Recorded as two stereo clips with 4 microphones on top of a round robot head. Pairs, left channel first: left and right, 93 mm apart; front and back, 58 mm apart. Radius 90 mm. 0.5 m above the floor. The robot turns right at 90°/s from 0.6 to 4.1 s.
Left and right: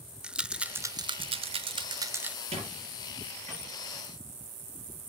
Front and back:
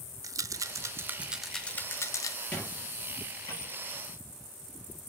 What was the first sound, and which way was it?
A rattle, 170° right.